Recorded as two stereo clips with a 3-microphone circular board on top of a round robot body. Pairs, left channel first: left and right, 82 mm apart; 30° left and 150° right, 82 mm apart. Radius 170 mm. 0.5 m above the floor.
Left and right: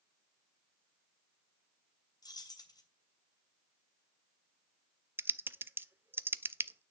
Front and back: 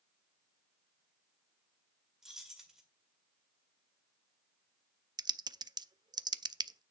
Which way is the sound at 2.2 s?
125° left.